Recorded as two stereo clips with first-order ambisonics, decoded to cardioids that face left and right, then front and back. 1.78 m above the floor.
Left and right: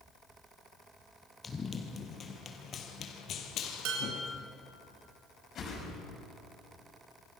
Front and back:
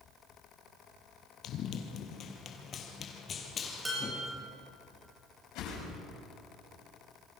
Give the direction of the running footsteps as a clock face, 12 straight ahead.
11 o'clock.